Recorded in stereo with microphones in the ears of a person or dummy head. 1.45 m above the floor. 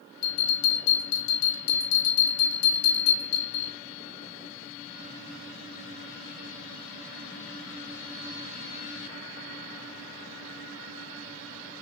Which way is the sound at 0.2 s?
80° left.